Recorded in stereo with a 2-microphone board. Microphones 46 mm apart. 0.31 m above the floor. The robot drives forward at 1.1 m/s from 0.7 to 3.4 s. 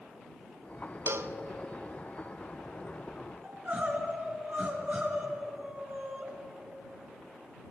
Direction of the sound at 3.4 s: 35° right (ahead or behind).